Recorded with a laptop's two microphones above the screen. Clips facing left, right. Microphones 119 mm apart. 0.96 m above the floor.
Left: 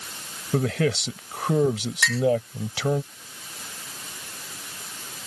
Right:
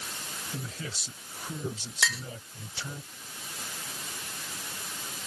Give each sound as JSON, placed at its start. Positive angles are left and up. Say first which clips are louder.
{"t": 0.5, "sound": "a man speaking", "louder": "left 19 dB", "side_deg": 80}
{"t": 2.0, "sound": "a clink", "louder": "left 7 dB", "side_deg": -15}